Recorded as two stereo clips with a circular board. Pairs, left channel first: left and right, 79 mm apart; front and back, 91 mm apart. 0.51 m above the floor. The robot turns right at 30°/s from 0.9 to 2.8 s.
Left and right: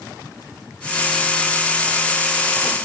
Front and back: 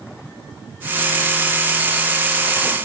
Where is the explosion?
No explosion in this recording.